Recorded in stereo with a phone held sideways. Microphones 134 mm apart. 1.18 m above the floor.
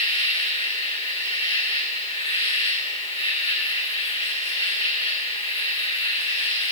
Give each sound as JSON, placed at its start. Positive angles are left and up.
{"t": 0.0, "sound": "an insect", "side_deg": 45, "distance_m": 7.5}